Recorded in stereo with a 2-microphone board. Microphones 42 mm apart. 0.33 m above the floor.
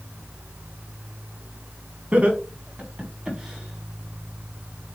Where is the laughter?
30° right (ahead or behind), 3 m; by 5.0 s 5° left (ahead or behind), 3.5 m.